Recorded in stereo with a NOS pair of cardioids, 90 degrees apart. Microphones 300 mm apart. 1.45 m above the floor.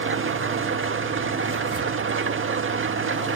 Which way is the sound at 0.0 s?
45° right.